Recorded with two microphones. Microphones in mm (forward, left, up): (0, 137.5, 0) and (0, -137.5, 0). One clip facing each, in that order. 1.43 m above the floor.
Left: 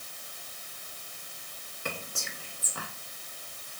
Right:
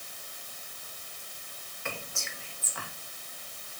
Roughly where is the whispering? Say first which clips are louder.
Left 1 dB; left.